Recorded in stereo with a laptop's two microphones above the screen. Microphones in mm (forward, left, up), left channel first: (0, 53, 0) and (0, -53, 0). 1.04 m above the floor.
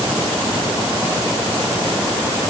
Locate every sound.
Only background noise.